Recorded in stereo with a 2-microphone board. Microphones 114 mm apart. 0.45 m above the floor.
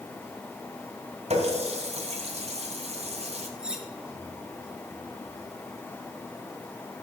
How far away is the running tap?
About 2 m.